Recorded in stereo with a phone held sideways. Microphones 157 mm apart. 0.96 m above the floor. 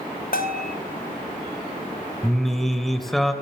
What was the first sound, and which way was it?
A bell, 70° left (ahead or behind).